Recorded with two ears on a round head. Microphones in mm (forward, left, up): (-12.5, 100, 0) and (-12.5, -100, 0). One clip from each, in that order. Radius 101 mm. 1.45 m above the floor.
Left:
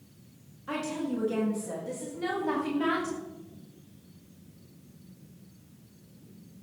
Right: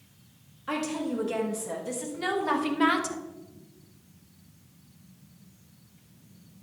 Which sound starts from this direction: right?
A woman speaking, at 0.7 s.